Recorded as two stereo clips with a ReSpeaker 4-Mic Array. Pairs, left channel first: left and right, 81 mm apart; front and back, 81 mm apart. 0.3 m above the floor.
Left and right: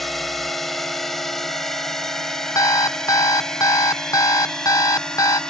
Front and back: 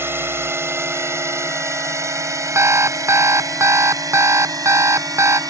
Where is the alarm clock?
130° left.